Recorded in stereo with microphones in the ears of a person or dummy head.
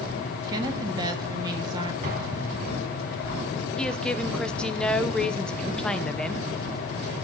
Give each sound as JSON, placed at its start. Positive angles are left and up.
{"t": 0.5, "sound": "a woman speaking", "side_deg": -20, "distance_m": 1.7}
{"t": 2.0, "sound": "an explosion", "side_deg": -50, "distance_m": 3.0}
{"t": 3.8, "sound": "a woman speaking", "side_deg": 5, "distance_m": 0.9}